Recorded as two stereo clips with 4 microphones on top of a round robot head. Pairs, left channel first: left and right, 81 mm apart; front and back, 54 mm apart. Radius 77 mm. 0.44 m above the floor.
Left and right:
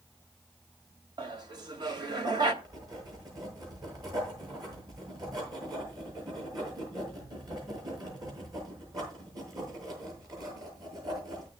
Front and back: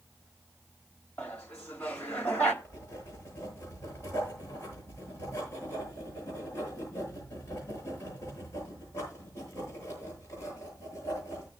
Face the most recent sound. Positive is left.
turn(degrees=-50)